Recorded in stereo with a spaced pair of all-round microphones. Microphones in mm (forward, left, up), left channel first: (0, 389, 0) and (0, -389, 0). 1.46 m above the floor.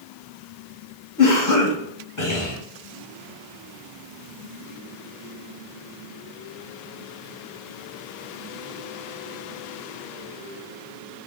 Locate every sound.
1.2 s a cough: 25° left (ahead or behind), 0.6 m